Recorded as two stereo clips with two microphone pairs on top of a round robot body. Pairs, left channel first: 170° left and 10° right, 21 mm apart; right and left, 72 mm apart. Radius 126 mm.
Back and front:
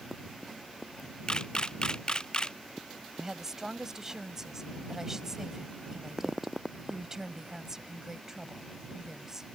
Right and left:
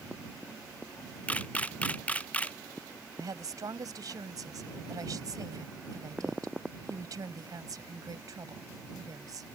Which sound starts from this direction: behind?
A camera shutter, at 1.3 s.